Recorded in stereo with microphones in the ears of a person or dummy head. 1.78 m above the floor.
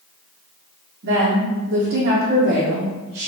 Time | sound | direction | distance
1.0 | a woman speaking | 55° right (ahead or behind) | 0.8 m